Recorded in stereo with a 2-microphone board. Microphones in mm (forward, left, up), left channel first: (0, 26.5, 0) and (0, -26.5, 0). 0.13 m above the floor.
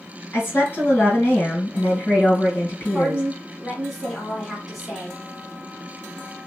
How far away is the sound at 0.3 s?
About 2 m.